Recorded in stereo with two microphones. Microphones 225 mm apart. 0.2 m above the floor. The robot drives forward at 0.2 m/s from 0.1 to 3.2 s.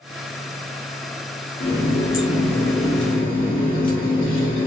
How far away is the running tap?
About 1.7 m.